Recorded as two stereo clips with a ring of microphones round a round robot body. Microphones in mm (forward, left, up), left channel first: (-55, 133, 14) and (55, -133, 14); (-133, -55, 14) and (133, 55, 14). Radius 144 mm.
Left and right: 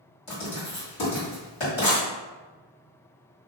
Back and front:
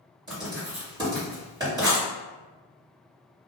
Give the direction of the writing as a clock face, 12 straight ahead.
9 o'clock.